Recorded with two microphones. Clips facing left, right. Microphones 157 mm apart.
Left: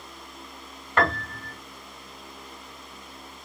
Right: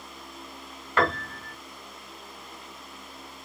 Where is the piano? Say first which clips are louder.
Left 1 dB; centre (ahead or behind), 2 m.